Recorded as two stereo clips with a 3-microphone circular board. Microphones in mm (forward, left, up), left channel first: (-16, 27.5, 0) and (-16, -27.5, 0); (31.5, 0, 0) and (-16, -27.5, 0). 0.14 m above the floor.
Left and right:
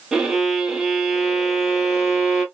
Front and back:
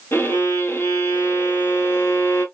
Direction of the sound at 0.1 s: 10° right.